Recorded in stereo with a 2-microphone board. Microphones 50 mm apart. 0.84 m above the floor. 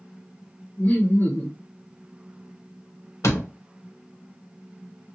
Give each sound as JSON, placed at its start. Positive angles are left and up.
{"t": 0.8, "sound": "laughter", "side_deg": 40, "distance_m": 1.5}
{"t": 3.2, "sound": "a door slam", "side_deg": 75, "distance_m": 0.8}